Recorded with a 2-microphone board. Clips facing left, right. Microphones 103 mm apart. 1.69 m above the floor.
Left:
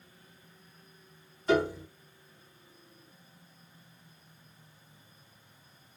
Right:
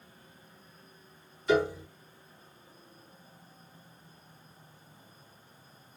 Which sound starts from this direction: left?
A piano, at 1.5 s.